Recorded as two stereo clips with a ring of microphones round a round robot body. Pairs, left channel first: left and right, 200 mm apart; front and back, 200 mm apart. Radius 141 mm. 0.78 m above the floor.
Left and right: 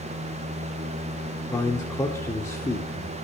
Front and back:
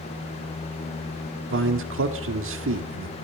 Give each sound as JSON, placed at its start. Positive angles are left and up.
{"t": 1.5, "sound": "a man speaking", "azimuth_deg": 170, "distance_m": 1.5}